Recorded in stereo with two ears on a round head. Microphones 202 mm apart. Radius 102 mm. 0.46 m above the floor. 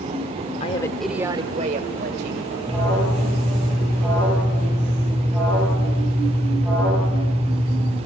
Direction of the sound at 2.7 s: 5° right (ahead or behind).